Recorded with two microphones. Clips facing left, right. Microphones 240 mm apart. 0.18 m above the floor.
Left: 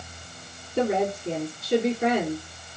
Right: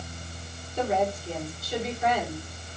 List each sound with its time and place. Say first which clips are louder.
0.8 s a woman speaking: left 3 dB; 65° left (ahead or behind), 3.5 m